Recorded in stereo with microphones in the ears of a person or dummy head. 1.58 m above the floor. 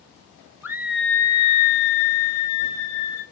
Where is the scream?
15° right (ahead or behind), 0.8 m; by 3.2 s 85° left, 1.2 m.